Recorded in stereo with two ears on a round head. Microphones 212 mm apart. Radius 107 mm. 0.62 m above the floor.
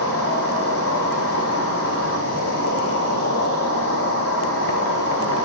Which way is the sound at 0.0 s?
65° left (ahead or behind).